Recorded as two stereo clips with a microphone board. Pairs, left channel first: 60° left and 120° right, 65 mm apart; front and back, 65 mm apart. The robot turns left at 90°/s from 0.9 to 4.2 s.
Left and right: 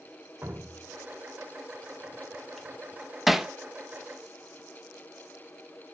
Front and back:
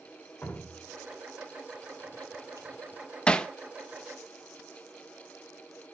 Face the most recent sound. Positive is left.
turn(degrees=-120)